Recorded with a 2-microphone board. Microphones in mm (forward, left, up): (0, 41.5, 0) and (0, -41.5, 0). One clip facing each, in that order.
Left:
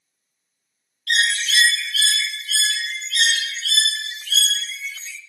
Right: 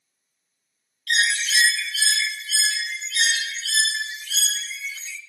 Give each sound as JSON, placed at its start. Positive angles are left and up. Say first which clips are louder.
{"t": 1.1, "sound": "a bird", "louder": "left 1 dB", "side_deg": 60, "distance_m": 0.6}